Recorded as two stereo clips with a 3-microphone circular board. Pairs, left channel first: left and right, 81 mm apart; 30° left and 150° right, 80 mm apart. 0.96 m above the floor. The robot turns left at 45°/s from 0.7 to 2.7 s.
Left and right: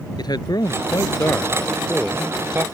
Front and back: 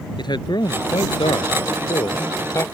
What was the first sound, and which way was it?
A man speaking, 55° left.